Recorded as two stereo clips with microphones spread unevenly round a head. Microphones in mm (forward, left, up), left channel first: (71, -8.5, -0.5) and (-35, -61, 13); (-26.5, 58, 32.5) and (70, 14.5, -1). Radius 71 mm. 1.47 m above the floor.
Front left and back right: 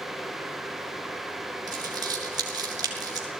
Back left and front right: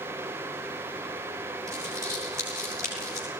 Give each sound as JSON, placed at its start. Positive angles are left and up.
{"t": 1.7, "sound": "crumpling", "azimuth_deg": -100, "distance_m": 6.0}